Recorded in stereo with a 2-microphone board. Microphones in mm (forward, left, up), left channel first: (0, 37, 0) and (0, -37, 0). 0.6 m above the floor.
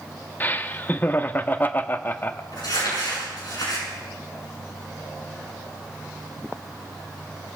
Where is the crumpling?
60° left (ahead or behind), 7 m.